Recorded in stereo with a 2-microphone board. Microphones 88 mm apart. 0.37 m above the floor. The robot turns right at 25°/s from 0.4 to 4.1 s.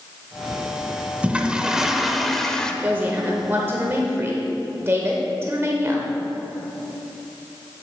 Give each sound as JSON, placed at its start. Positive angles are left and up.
{"t": 1.2, "sound": "a toilet flushing", "azimuth_deg": -25, "distance_m": 0.5}
{"t": 2.8, "sound": "a woman speaking", "azimuth_deg": -135, "distance_m": 0.9}